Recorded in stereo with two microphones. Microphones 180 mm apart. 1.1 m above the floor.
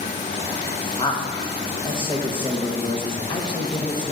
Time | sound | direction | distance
1.0 | a man speaking | 25° left (ahead or behind) | 1.3 m